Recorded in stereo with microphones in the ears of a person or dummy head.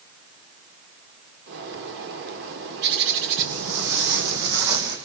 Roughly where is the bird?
Right.